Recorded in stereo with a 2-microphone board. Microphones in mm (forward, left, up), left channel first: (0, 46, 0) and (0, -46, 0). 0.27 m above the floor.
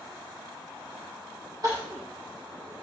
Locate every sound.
1.6 s crying: 45° right (ahead or behind), 6.5 m